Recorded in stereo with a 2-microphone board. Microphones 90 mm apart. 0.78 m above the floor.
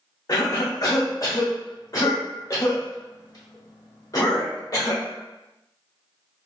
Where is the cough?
40° left (ahead or behind), 1.0 m.